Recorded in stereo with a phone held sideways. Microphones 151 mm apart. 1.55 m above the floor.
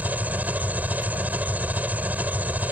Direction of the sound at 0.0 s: 10° right (ahead or behind).